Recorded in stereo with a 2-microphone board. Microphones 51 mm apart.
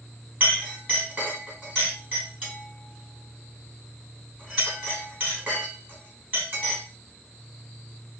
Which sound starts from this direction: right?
A clink, at 0.4 s.